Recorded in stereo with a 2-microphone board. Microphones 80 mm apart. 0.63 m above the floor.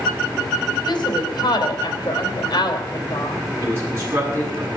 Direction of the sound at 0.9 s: 65° left (ahead or behind).